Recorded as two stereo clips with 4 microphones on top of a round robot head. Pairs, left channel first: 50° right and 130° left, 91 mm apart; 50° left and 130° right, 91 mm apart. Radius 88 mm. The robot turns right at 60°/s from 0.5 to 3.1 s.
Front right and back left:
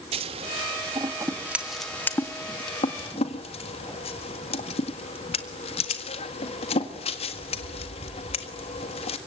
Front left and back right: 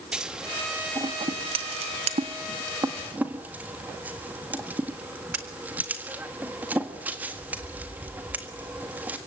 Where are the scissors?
145° left, 1.7 m; by 9.2 s 60° right, 1.7 m.